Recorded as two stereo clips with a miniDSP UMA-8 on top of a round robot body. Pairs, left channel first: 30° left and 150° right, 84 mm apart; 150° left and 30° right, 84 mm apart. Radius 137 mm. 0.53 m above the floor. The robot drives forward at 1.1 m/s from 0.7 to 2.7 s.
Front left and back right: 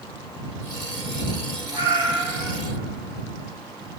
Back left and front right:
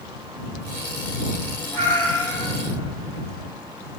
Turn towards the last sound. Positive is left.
turn(degrees=180)